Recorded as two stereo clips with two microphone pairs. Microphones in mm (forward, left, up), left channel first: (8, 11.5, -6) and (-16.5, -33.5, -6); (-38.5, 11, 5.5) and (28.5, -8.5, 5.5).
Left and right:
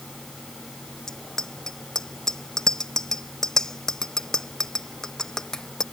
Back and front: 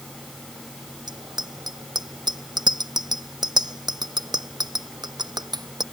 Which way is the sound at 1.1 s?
15° right.